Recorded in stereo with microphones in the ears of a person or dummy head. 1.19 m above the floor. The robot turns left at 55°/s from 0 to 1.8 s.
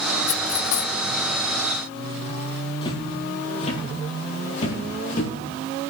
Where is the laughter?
No laughter in this recording.